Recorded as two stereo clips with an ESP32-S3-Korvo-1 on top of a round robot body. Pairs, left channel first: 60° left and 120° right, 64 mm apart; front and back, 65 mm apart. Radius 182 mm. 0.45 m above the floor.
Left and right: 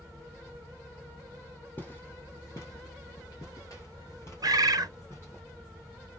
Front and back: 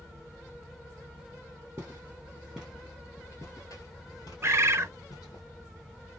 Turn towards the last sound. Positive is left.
turn(degrees=-135)